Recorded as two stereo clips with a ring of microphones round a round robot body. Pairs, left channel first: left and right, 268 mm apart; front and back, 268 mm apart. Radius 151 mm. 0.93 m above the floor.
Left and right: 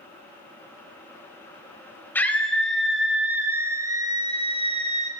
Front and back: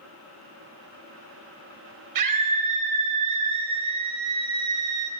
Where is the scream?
175° left, 5.5 m; by 5.1 s 155° right, 5 m.